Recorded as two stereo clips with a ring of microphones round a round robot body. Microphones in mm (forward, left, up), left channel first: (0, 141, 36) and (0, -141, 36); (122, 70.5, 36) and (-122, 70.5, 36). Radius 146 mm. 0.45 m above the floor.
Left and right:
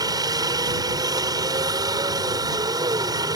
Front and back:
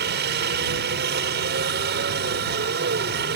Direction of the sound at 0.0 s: 160° right.